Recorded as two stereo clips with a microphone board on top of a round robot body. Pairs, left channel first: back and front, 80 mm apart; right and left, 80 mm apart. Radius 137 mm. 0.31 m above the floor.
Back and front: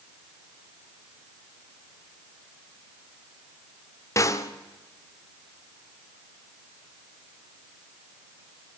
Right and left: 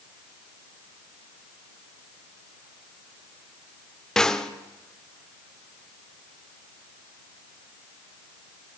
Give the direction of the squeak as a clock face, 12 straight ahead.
I don't hear a squeak.